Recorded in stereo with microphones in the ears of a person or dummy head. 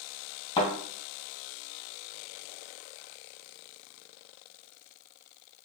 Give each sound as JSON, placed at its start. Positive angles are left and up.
{"t": 0.6, "sound": "a thud", "side_deg": 30, "distance_m": 2.0}